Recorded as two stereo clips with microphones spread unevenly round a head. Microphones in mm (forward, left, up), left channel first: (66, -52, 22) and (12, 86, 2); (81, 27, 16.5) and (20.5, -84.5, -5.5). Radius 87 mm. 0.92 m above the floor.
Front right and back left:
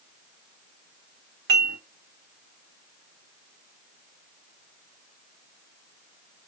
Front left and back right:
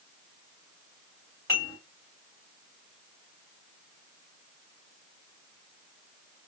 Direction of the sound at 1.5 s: 140° left.